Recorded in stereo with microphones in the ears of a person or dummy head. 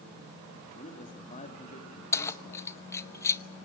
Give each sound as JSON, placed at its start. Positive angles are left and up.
{"t": 0.8, "sound": "a man speaking", "side_deg": 40, "distance_m": 3.5}
{"t": 2.1, "sound": "keys jangling", "side_deg": 15, "distance_m": 0.7}